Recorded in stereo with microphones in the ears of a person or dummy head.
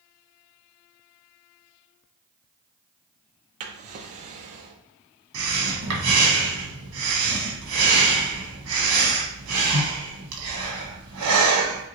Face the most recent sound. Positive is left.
turn(degrees=-80)